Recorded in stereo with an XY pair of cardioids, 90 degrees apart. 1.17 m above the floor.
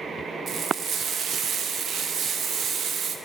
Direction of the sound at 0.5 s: 65° right.